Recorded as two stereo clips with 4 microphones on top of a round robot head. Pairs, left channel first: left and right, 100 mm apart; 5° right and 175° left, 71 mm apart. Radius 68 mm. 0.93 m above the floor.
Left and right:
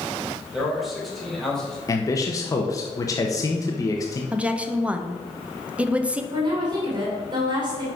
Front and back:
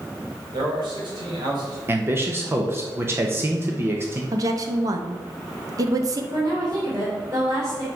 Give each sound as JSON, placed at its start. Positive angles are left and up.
{"t": 0.5, "sound": "a man speaking", "azimuth_deg": -175, "distance_m": 3.0}
{"t": 1.9, "sound": "a man speaking", "azimuth_deg": 130, "distance_m": 1.1}
{"t": 4.3, "sound": "a woman speaking", "azimuth_deg": -165, "distance_m": 0.9}
{"t": 6.3, "sound": "a woman speaking", "azimuth_deg": -130, "distance_m": 3.0}